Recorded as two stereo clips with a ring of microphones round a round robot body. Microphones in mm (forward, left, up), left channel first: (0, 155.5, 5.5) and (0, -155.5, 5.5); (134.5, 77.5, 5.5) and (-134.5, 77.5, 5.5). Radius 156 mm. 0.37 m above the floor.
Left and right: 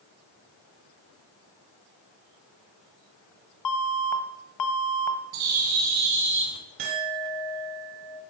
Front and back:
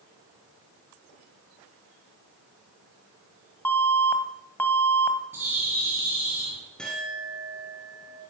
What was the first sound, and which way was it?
An alarm, 80° left.